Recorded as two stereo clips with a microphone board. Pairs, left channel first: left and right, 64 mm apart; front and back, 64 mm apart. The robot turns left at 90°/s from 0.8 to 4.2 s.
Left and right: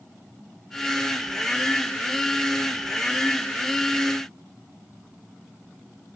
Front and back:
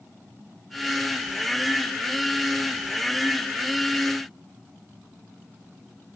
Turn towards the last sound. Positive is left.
No sound to turn to.